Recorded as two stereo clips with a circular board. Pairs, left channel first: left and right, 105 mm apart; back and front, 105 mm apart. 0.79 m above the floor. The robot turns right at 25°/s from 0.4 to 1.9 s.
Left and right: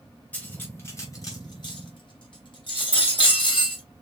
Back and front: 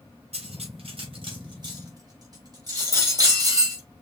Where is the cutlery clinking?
15° left, 3 m; by 3.8 s 50° left, 3 m.